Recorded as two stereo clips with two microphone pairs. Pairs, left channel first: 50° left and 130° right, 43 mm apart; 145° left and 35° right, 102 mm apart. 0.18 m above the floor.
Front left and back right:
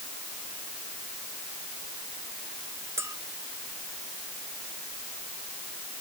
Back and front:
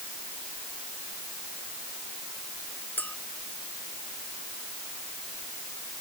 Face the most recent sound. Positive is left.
turn(degrees=-140)